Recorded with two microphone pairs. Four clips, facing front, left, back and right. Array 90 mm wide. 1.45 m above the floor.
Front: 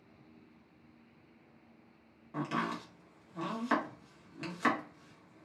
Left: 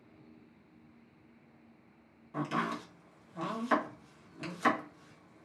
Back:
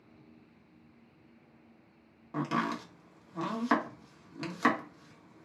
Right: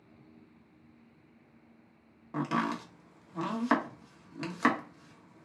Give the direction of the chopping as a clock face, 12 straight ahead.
4 o'clock.